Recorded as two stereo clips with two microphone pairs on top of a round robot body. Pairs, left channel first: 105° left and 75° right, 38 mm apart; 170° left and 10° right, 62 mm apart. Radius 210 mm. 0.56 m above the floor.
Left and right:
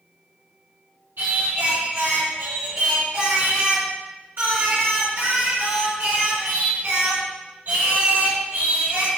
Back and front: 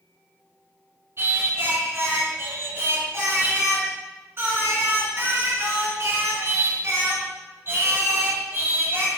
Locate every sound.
1.2 s singing: 55° right, 2.5 m